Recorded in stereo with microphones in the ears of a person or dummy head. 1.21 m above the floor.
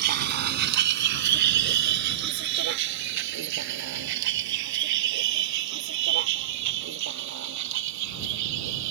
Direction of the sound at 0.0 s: 55° right (ahead or behind).